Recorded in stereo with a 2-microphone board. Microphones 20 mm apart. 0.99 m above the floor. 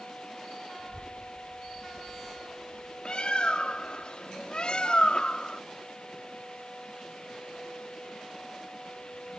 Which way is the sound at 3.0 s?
55° left (ahead or behind).